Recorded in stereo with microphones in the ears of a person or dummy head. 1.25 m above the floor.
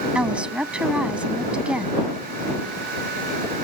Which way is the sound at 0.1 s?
5° right (ahead or behind).